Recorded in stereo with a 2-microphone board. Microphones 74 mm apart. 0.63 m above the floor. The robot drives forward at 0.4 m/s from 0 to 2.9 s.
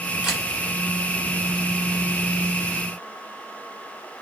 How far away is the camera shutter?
About 2.0 m.